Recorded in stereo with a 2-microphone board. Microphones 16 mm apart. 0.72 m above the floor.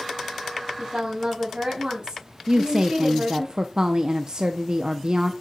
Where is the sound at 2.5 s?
45° right (ahead or behind), 0.6 m.